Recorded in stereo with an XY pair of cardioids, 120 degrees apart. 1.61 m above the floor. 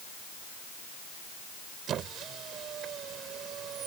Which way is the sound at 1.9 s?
60° right.